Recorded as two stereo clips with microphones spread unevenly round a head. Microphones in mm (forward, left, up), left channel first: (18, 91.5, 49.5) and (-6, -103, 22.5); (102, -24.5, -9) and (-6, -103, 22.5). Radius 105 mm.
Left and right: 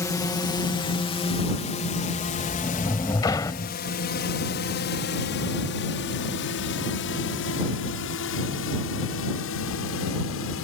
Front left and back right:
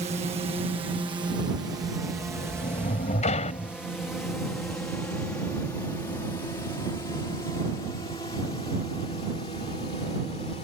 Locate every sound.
0.0 s a drone: 160° left; by 10.7 s 100° left
2.1 s a sliding door: 35° left